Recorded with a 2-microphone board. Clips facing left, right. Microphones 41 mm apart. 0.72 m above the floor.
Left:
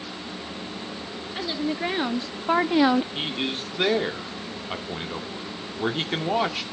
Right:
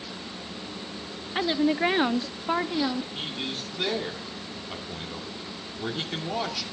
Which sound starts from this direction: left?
A man speaking, at 3.1 s.